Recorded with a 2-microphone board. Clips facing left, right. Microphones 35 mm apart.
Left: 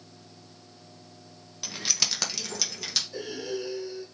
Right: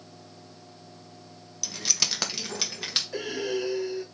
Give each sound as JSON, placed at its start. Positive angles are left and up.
{"t": 1.6, "sound": "keys jangling", "side_deg": 30, "distance_m": 0.6}
{"t": 3.1, "sound": "breathing", "side_deg": -80, "distance_m": 0.9}